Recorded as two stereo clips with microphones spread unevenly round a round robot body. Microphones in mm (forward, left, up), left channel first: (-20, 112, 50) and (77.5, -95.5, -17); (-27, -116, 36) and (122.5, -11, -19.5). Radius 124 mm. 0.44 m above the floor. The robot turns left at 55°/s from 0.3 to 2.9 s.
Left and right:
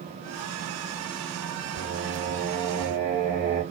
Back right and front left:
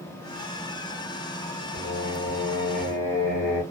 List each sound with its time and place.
1.7 s singing: 70° right, 1.2 m; by 3.6 s 135° right, 1.2 m